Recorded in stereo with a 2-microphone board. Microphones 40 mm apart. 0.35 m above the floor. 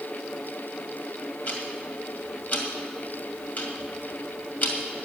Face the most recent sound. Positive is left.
turn(degrees=50)  # may be behind; listen again after turning